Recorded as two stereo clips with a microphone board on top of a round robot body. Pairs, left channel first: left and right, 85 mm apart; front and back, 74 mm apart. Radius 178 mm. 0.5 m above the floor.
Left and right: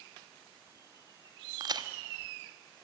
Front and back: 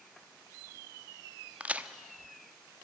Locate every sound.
1.6 s a crack: 110° right, 1.4 m